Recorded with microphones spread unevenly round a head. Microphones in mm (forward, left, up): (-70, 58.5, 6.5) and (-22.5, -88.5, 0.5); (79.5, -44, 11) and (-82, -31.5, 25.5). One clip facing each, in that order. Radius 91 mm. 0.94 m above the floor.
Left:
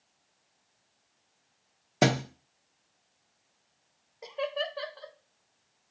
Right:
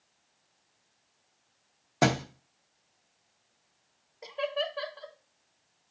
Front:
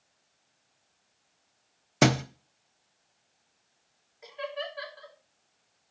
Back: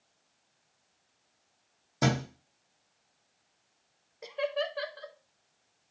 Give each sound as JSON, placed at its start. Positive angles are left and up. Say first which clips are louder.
{"t": 2.0, "sound": "a thud", "louder": "left 1 dB, front 5 dB", "azimuth_deg": 35, "distance_m": 0.8}
{"t": 4.2, "sound": "laughter", "louder": "right 1 dB, back 5 dB", "azimuth_deg": -160, "distance_m": 1.3}